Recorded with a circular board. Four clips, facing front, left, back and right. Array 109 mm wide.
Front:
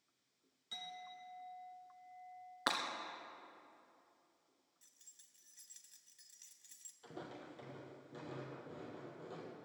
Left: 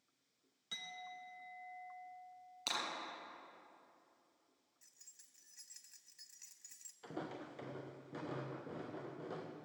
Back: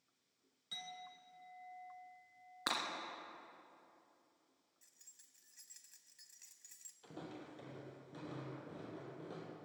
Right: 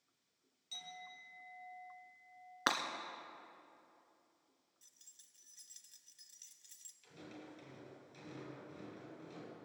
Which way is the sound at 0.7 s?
90° left.